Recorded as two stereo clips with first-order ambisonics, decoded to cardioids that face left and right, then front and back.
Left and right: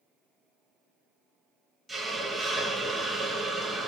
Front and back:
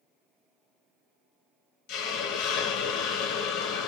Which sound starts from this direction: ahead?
A hiss, at 1.9 s.